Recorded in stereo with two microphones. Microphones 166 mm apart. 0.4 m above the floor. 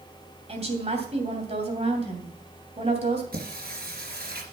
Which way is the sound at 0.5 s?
40° right (ahead or behind).